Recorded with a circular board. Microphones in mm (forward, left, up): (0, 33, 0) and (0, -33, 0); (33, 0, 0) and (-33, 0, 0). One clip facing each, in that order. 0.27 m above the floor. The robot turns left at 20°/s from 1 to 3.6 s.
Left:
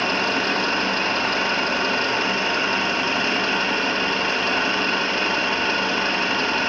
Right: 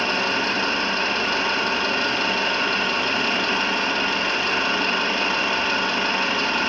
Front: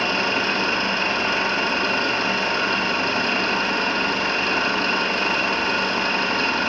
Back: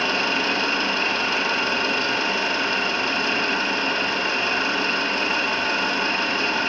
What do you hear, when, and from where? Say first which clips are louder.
0.0 s an engine running: left 1 dB, front 1 dB; 50° left, 2 m; by 6.7 s straight ahead, 2 m